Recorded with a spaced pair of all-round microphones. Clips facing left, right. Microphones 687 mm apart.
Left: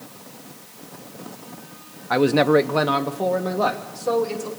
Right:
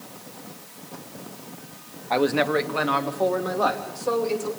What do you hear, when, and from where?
2.1 s a man speaking: 45° left (ahead or behind), 0.7 m